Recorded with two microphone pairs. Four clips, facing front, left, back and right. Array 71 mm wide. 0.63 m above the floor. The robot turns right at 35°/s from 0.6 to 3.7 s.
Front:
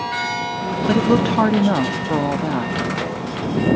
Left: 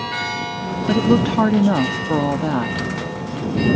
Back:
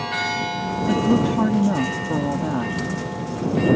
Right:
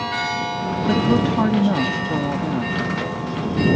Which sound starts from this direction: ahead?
A woman speaking, at 0.9 s.